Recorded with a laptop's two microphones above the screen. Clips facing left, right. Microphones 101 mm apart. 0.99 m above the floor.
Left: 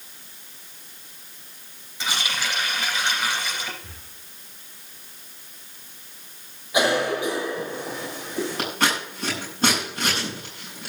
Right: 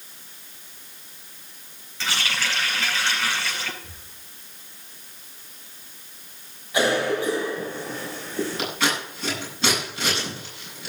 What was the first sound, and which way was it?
A running tap, 15° left (ahead or behind).